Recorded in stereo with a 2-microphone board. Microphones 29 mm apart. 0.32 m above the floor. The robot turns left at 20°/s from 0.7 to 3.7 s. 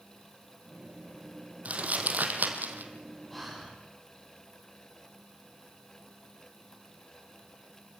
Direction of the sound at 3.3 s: 5° left (ahead or behind).